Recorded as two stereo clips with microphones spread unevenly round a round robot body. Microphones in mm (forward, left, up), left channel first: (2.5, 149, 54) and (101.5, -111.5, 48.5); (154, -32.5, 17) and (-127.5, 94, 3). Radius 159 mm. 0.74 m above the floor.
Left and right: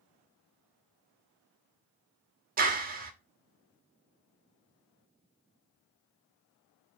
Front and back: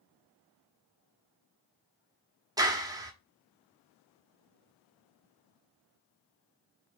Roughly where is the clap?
Behind right.